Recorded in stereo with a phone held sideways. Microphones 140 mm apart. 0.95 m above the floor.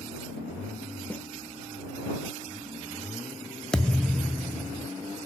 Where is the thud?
5° left (ahead or behind).